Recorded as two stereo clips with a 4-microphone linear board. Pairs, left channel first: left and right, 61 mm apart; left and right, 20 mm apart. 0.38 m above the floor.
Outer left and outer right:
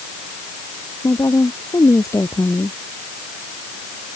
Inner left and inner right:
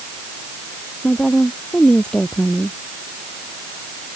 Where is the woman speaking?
65° left (ahead or behind); by 2.8 s 50° left (ahead or behind).